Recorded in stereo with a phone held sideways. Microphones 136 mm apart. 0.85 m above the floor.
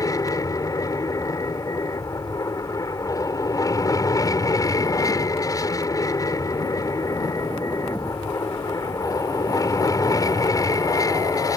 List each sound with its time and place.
0.0 s an aircraft: 25° left (ahead or behind)